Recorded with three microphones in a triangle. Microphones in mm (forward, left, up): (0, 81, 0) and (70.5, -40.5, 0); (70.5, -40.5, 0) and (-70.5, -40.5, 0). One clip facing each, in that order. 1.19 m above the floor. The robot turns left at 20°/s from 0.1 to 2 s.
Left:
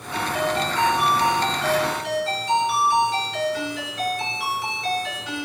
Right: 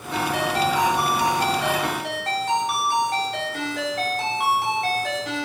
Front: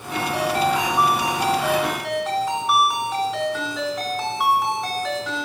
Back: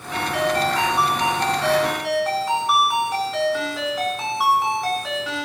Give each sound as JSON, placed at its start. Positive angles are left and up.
{"t": 0.1, "sound": "a ringtone", "azimuth_deg": -55, "distance_m": 4.5}